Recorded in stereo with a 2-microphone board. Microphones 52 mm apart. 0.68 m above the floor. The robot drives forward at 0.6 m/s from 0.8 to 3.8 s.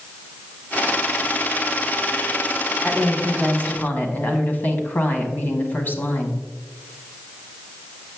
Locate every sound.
2.8 s a woman speaking: 25° left (ahead or behind), 1.5 m; by 6.4 s 35° left (ahead or behind), 1.0 m